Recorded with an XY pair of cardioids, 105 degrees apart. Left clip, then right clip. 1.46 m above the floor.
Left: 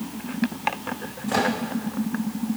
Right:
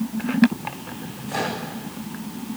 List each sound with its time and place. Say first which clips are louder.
1.3 s a microwave: left 3 dB; 50° left, 3 m